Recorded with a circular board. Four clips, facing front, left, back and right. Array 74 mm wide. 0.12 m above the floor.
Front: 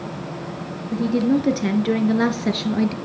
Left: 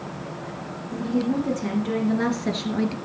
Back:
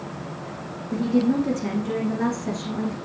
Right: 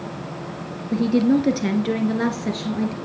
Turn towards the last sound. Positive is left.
turn(degrees=15)